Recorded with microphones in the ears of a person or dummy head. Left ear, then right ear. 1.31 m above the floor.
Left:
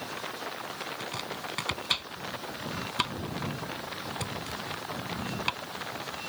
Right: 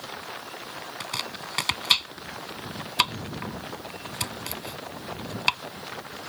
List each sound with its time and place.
1.0 s chopping: 30° right (ahead or behind)